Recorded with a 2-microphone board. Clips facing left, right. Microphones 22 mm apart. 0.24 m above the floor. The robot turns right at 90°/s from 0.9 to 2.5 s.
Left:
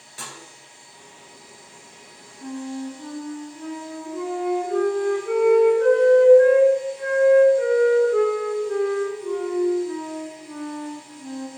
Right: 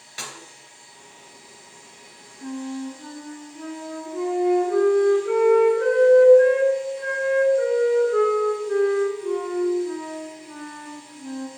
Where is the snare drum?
40° right (ahead or behind), 2 m.